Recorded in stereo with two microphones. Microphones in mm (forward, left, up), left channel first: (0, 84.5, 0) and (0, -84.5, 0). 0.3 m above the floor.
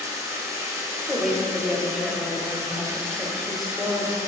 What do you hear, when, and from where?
0.0 s running water: 20° right (ahead or behind), 1.8 m
1.1 s a woman speaking: centre (ahead or behind), 0.9 m